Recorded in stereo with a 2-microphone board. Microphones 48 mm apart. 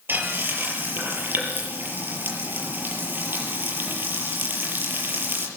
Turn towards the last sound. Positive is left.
turn(degrees=-50)  # may be behind; listen again after turning